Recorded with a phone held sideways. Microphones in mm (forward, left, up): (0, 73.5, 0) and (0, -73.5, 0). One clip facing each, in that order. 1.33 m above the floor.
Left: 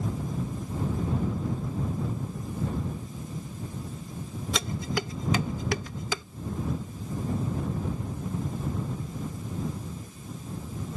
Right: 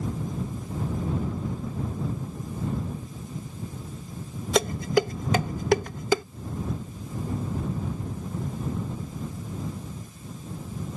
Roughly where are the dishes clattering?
Right.